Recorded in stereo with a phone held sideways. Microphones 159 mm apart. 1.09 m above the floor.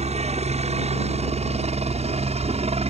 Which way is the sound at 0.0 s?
45° right (ahead or behind).